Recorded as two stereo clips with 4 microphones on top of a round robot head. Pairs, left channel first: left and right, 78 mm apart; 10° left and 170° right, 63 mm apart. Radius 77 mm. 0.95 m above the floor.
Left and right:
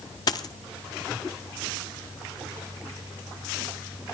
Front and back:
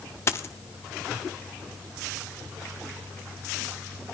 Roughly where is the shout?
No shout in this recording.